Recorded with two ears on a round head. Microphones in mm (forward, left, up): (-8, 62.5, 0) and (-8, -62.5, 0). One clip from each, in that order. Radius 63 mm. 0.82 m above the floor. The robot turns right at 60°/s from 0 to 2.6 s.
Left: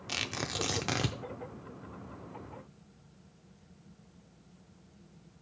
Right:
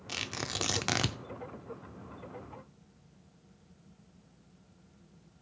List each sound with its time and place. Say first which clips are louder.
0.1 s tearing paper: left 1 dB; 175° left, 0.5 m; by 1.2 s 120° right, 0.5 m